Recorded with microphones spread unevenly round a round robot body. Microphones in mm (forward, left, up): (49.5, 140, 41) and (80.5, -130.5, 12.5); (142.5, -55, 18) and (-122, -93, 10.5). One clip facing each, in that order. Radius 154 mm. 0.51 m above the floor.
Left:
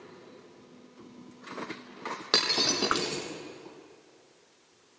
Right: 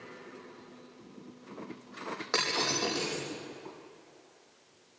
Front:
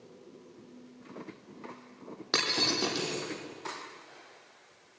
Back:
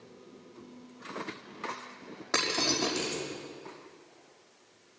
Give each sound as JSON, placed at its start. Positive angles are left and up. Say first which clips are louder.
{"t": 2.3, "sound": "breaking glass", "louder": "left 3 dB, back 1 dB", "azimuth_deg": 60, "distance_m": 5.0}